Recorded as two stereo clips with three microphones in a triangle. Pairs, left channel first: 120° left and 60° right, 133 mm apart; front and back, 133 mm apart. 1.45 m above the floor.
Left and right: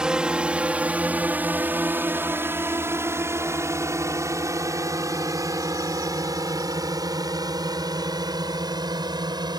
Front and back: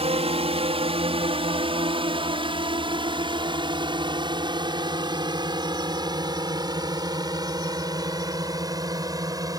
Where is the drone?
145° right; by 9.6 s 115° right.